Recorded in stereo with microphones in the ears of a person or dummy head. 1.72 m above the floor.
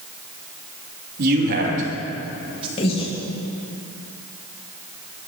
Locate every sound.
1.2 s a man speaking: 55° right (ahead or behind), 3 m; by 2.7 s 30° right (ahead or behind), 3 m
2.8 s breathing: 30° left (ahead or behind), 2.5 m